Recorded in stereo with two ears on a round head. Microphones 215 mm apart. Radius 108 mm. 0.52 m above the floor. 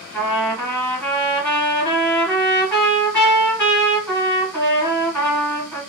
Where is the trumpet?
5° left (ahead or behind), 1.8 m.